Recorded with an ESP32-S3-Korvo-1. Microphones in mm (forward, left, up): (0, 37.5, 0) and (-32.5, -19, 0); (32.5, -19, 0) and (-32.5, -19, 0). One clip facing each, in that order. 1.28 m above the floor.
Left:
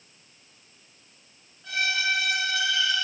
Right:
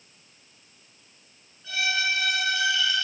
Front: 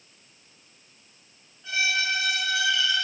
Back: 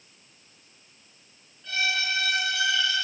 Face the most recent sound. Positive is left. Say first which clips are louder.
# even, front 2 dB
turn(degrees=70)